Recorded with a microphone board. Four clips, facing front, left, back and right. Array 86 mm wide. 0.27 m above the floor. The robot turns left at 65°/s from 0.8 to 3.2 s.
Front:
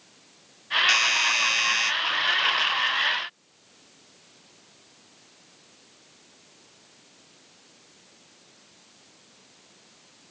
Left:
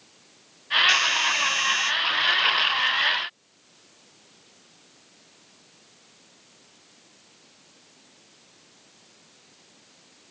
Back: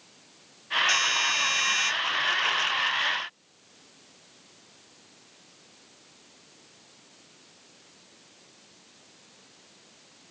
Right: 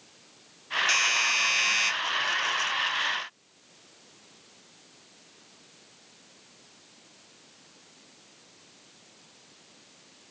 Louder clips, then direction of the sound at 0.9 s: Left 4 dB, front 2 dB; 15° left.